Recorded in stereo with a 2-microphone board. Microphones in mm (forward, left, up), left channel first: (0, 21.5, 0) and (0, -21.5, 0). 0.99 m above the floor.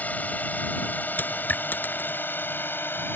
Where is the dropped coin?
45° left (ahead or behind).